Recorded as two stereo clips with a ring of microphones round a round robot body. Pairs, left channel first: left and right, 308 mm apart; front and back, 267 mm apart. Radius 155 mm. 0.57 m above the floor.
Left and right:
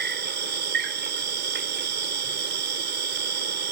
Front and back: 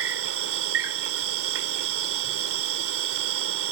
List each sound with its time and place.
0.0 s an insect: 145° right